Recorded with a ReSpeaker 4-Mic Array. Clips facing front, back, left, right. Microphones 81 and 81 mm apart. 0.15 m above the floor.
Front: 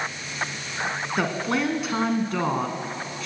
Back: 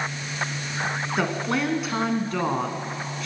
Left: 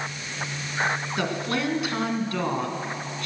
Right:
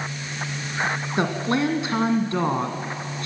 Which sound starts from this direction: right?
A woman speaking, at 1.2 s.